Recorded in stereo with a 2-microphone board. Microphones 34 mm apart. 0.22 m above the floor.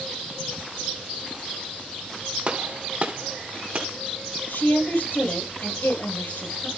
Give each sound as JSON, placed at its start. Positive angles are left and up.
{"t": 2.5, "sound": "a gunshot", "side_deg": -40, "distance_m": 1.8}
{"t": 4.5, "sound": "a woman speaking", "side_deg": 75, "distance_m": 6.0}